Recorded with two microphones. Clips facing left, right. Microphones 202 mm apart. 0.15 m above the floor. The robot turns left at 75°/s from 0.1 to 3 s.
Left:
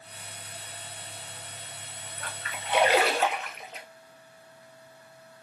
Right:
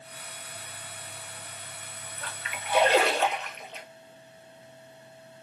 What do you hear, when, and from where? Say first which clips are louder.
2.2 s a splash: left 1 dB; 60° left (ahead or behind), 1.2 m; by 3.9 s 5° left (ahead or behind), 1.2 m